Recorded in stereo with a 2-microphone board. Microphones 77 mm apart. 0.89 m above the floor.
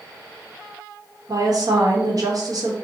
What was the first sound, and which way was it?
A woman speaking, 55° right (ahead or behind).